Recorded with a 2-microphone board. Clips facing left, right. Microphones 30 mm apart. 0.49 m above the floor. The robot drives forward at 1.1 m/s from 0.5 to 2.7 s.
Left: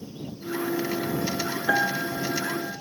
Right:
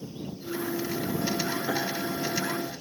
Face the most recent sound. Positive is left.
turn(degrees=85)